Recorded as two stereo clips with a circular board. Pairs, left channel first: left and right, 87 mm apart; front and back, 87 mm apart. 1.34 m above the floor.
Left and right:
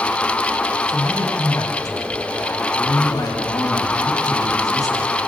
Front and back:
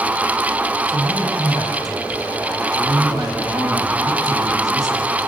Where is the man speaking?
135° left, 8.5 m.